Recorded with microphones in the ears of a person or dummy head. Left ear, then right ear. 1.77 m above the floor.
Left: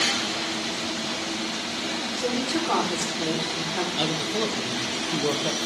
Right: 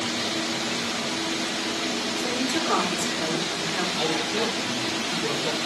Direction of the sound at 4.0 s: 75° left (ahead or behind).